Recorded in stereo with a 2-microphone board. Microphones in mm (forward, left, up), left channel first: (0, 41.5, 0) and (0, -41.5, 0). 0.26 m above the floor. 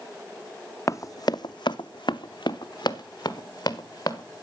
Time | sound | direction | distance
0.9 | running footsteps | 40° left (ahead or behind) | 0.5 m